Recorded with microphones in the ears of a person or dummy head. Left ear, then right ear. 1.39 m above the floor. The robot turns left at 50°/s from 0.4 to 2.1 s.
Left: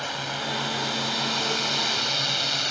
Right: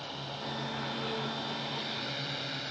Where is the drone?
50° left (ahead or behind).